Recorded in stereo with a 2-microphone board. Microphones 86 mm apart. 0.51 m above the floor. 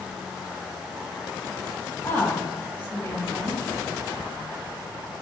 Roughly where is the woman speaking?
Left.